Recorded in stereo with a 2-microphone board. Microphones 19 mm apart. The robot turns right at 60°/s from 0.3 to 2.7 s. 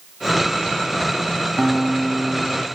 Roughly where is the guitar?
Ahead right.